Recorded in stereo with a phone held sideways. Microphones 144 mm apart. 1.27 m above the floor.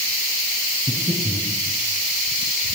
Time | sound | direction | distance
0.9 | breathing | 10° right (ahead or behind) | 8 m